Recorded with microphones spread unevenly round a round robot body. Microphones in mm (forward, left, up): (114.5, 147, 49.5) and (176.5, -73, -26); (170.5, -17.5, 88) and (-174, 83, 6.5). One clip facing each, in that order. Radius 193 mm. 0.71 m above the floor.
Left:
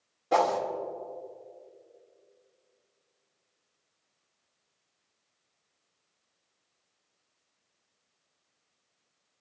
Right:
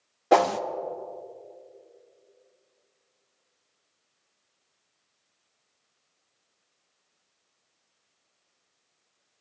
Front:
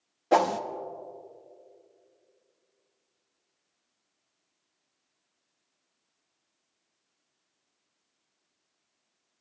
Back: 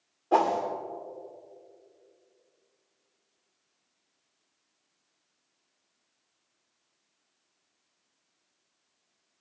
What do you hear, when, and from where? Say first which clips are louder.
0.3 s a whoosh: right 5 dB, front 1 dB; 65° right, 0.7 m